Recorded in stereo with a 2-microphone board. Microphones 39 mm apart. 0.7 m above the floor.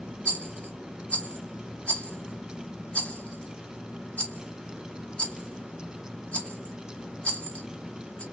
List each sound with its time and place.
0.2 s a rattle: 35° left (ahead or behind), 1.2 m